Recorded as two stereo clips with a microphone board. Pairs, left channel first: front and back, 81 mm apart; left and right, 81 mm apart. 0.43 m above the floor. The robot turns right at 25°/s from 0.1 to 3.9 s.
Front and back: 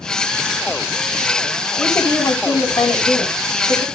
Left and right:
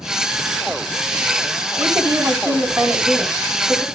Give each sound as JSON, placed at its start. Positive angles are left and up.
{"t": 1.8, "sound": "a woman speaking", "azimuth_deg": -50, "distance_m": 4.0}